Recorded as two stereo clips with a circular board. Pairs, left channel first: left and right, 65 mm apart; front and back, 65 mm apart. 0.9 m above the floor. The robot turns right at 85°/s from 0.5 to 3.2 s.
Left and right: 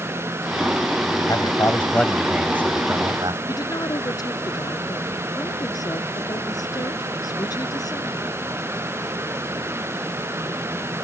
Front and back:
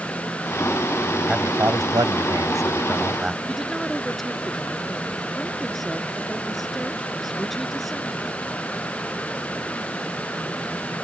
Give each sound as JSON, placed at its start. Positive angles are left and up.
{"t": 1.3, "sound": "a man speaking", "azimuth_deg": 100}
{"t": 3.5, "sound": "a woman speaking", "azimuth_deg": 85}